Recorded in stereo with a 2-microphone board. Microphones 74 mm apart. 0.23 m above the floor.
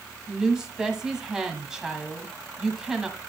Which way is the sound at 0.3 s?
10° right (ahead or behind).